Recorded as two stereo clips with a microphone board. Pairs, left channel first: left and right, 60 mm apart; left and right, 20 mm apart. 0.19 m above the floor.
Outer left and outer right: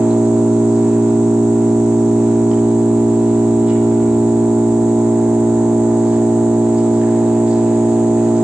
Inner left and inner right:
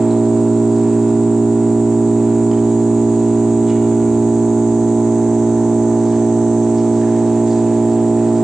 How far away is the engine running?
About 5.5 m.